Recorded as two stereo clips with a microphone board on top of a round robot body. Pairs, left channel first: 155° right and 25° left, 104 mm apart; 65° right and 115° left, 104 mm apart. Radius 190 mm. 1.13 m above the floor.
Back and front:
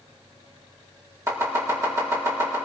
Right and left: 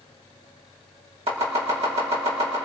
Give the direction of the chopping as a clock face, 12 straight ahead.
9 o'clock.